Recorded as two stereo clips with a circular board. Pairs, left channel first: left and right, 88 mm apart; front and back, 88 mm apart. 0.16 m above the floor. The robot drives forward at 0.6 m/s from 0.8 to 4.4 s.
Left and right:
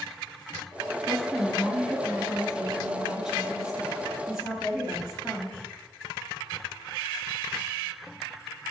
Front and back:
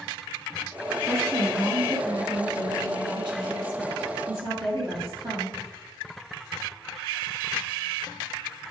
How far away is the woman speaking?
About 1.3 m.